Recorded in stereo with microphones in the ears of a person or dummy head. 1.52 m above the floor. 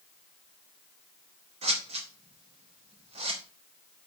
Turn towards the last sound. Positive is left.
turn(degrees=-40)  # may be behind; listen again after turning